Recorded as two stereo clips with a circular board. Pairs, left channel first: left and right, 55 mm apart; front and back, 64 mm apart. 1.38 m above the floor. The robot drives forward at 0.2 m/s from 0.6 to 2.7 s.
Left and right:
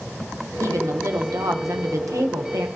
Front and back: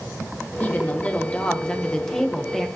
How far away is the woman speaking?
About 1.0 m.